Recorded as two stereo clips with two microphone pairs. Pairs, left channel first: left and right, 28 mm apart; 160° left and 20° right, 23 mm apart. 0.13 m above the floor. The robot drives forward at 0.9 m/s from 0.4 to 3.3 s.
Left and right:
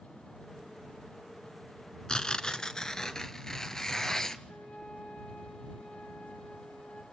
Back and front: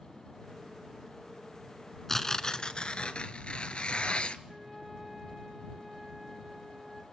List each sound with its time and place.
2.1 s tearing paper: 95° left, 0.9 m; by 4.4 s 155° left, 1.5 m
4.5 s a flute: 65° left, 9.5 m